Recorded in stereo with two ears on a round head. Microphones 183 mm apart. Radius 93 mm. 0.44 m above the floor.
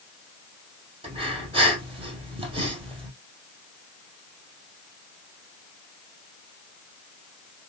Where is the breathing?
30° right (ahead or behind), 2.5 m.